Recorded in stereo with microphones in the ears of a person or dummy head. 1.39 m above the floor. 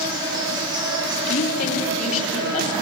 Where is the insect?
15° right (ahead or behind), 6 m.